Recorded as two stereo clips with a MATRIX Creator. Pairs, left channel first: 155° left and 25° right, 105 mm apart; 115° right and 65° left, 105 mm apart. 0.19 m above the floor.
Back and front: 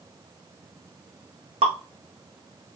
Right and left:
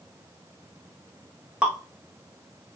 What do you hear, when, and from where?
1.6 s dripping: 10° right, 2.5 m